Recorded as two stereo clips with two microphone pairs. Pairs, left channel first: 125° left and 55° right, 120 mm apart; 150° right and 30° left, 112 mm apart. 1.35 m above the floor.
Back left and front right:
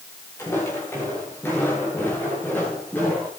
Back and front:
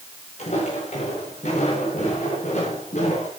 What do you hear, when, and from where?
0.4 s footsteps: 160° right, 9.5 m; by 3.3 s 155° right, 12.5 m